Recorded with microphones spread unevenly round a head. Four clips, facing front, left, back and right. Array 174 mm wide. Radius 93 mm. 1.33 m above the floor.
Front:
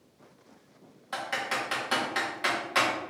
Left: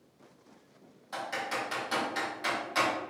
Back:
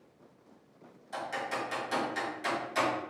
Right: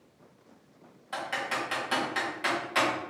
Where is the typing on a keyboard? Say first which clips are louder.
Right 2 dB, front 3 dB; 15° right, 2 m.